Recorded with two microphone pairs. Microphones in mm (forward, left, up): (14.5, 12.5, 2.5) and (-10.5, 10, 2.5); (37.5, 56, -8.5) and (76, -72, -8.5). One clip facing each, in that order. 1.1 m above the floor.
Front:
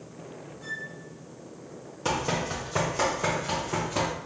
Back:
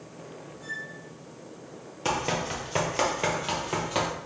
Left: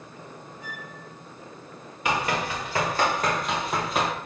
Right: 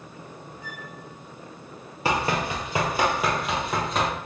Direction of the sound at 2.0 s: 110° right.